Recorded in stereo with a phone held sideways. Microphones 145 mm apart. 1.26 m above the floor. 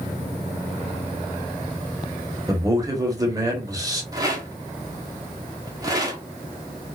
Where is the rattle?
25° right (ahead or behind), 0.9 m.